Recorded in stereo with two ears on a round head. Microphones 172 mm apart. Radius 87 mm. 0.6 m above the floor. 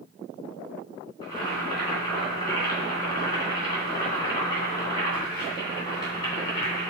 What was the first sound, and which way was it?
Boiling, 20° left (ahead or behind).